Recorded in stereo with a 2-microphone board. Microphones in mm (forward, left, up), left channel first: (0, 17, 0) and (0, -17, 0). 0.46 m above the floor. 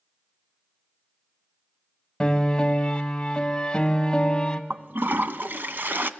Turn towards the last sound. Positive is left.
turn(degrees=-75)  # may be behind; listen again after turning